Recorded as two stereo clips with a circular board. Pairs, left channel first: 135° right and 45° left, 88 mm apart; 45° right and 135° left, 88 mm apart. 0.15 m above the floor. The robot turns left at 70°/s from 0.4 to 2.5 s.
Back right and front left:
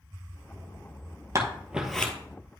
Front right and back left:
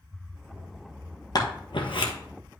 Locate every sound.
1.4 s scissors: 5° right, 1.6 m; by 2.1 s 60° right, 1.6 m